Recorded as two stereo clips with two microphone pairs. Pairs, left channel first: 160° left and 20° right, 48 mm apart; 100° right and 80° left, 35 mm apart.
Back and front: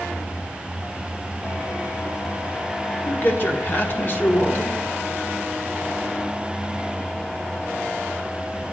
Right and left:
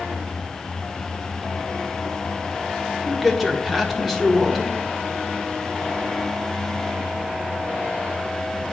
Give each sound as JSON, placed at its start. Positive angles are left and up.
{"t": 3.1, "sound": "a man speaking", "azimuth_deg": 175, "distance_m": 1.0}